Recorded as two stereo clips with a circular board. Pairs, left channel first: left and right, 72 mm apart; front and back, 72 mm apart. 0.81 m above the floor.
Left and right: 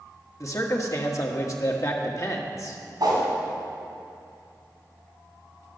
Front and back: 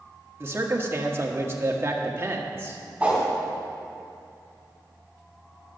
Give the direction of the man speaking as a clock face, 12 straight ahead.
8 o'clock.